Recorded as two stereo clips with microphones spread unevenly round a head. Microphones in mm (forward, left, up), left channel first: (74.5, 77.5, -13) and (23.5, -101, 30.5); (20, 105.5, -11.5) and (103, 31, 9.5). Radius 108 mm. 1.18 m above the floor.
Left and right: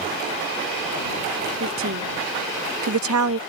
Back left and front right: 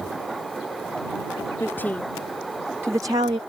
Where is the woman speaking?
140° right; by 3.4 s 110° right.